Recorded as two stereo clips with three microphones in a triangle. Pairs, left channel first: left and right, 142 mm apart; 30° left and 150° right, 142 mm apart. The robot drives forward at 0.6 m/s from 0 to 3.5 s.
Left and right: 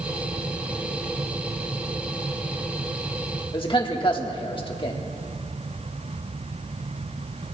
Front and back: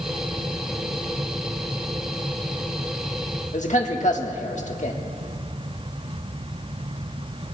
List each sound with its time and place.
3.5 s a man speaking: 45° left, 1.5 m